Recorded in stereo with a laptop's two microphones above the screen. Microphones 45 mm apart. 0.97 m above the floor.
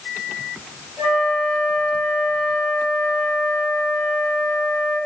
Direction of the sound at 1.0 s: 75° right (ahead or behind).